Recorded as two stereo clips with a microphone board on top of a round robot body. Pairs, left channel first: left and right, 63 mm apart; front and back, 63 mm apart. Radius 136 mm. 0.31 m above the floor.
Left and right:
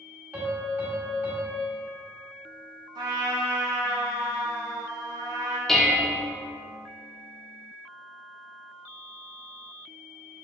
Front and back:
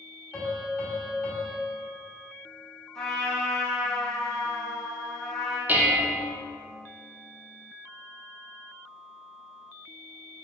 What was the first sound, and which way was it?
A piano, 60° right.